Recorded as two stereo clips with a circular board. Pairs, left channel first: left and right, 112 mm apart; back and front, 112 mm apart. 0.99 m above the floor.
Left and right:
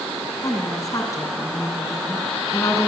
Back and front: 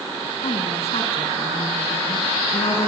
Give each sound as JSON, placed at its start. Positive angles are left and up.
{"t": 0.4, "sound": "a woman speaking", "azimuth_deg": 150, "distance_m": 9.5}